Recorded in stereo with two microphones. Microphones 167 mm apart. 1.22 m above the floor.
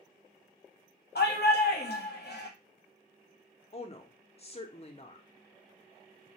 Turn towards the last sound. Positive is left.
turn(degrees=40)  # may be behind; listen again after turning